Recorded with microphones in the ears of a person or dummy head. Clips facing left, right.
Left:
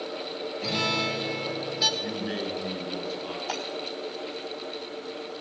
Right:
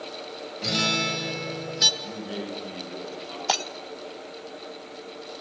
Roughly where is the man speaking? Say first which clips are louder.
Left 3 dB; left.